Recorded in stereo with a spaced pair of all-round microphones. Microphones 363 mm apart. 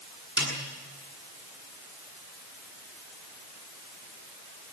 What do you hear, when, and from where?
0.4 s a snare drum: 5° right (ahead or behind), 7 m